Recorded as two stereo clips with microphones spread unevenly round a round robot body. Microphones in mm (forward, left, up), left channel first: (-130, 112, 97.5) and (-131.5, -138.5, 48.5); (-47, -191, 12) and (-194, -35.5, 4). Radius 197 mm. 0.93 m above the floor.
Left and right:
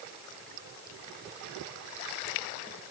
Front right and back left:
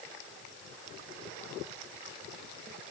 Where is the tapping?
No tapping in this recording.